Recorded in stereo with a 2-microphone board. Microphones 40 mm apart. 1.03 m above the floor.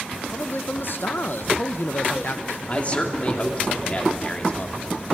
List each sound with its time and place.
0.3 s a man speaking: 55° left (ahead or behind), 0.6 m
2.7 s a man speaking: 30° left (ahead or behind), 2.5 m